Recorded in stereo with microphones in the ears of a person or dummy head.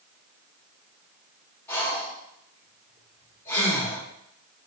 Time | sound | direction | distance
1.7 | breathing | 15° left (ahead or behind) | 4 m